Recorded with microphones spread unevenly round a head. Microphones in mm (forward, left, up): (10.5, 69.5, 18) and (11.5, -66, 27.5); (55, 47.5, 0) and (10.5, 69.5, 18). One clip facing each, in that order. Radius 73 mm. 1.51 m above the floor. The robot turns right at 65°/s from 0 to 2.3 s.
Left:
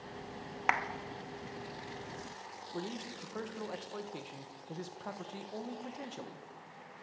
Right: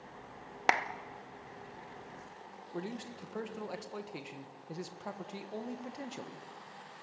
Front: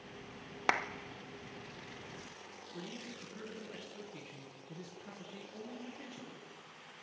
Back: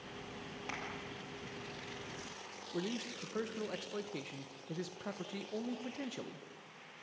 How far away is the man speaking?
About 1.6 m.